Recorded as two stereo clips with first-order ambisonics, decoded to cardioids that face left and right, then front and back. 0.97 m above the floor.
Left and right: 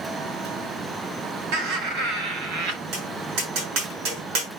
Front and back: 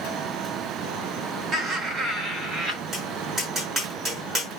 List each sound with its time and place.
1.5 s laughter: 105° right, 3.5 m; by 2.8 s 100° right, 4 m
2.9 s tapping: 100° right, 7 m